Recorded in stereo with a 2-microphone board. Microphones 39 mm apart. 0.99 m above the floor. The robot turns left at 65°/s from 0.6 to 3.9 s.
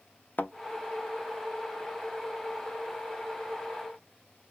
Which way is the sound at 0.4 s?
55° left (ahead or behind).